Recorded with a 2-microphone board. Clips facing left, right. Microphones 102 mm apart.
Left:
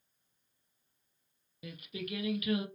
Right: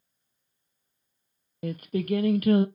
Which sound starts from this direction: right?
Singing, at 1.6 s.